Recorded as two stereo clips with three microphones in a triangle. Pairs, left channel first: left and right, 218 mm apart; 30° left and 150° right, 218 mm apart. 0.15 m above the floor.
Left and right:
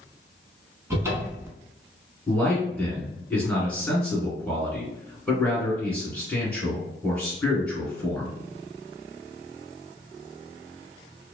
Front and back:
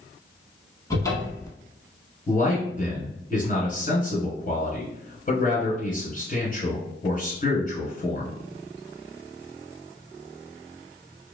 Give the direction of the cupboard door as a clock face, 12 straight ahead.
1 o'clock.